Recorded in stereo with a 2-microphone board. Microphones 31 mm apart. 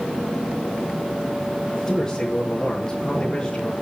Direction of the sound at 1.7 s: 15° left (ahead or behind).